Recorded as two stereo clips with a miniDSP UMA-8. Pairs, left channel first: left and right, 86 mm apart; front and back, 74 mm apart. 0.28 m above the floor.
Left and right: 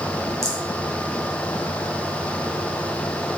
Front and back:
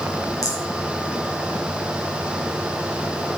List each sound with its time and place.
0.4 s a rattle: 35° right, 2.5 m